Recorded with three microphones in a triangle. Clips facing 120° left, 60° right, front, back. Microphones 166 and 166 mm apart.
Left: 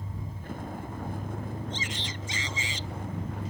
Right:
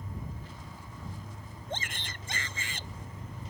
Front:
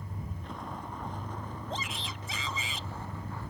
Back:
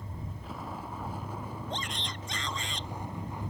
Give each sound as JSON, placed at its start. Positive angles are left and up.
{"t": 0.0, "sound": "a vehicle", "azimuth_deg": 90}
{"t": 1.7, "sound": "a shout", "azimuth_deg": -85}